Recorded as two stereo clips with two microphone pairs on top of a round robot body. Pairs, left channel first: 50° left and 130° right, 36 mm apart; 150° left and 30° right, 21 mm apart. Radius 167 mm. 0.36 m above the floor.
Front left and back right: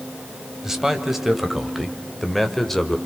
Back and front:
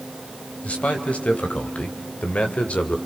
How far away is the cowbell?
No cowbell in this recording.